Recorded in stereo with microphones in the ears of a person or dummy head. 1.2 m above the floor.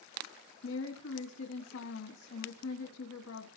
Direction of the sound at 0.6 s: 75° left (ahead or behind).